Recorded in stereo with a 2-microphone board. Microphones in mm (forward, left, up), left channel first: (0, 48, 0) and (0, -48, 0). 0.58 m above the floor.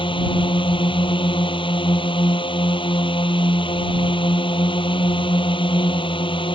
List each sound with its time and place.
0.0 s a drone: 60° left (ahead or behind)